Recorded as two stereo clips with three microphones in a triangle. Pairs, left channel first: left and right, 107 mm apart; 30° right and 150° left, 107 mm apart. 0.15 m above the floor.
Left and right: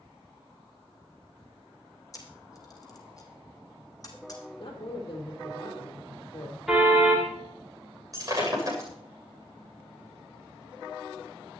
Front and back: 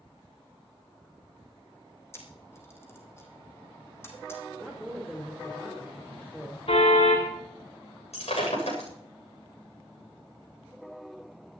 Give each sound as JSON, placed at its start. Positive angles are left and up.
{"t": 2.1, "sound": "a camera shutter", "azimuth_deg": 35, "distance_m": 3.0}
{"t": 4.6, "sound": "a woman speaking", "azimuth_deg": 55, "distance_m": 5.0}
{"t": 6.7, "sound": "a car horn", "azimuth_deg": -5, "distance_m": 8.5}
{"t": 8.1, "sound": "breaking glass", "azimuth_deg": -35, "distance_m": 7.5}